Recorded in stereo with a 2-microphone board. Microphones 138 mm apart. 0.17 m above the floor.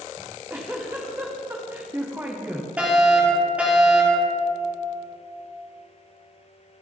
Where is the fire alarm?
10° right (ahead or behind), 6 m.